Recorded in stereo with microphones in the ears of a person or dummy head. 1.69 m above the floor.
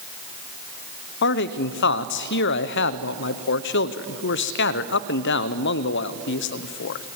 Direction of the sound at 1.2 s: 55° left (ahead or behind).